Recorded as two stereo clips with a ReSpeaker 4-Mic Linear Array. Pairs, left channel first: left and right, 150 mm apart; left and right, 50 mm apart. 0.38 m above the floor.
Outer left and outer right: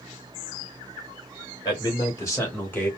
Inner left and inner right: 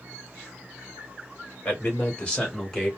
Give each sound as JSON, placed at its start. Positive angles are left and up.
{"t": 1.6, "sound": "a man speaking", "side_deg": 30, "distance_m": 2.0}